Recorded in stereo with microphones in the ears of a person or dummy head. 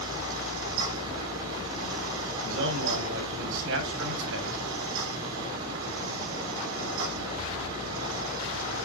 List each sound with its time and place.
0.0 s a fan: 70° right (ahead or behind), 6.5 m
2.5 s a man speaking: 70° right (ahead or behind), 7 m